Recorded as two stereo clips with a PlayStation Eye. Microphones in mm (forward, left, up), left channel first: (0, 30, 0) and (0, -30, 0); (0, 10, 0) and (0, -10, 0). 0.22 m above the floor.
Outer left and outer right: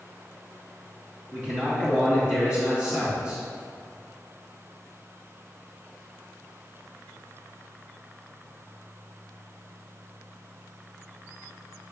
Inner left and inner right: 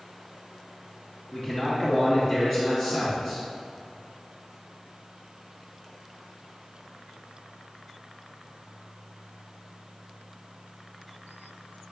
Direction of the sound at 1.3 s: 15° right (ahead or behind).